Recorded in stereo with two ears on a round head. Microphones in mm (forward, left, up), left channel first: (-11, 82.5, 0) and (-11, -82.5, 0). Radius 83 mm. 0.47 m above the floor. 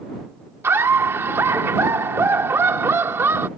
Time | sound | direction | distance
0.6 | laughter | 15° right (ahead or behind) | ?